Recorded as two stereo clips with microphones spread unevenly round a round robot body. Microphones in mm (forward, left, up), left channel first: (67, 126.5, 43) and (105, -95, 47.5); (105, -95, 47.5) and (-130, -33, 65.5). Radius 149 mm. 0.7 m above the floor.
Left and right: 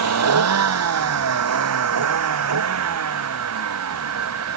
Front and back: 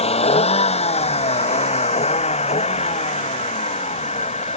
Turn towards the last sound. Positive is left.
turn(degrees=-80)